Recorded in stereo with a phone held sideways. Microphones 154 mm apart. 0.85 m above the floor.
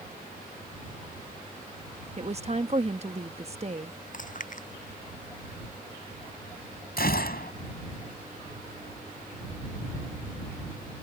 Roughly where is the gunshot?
Left.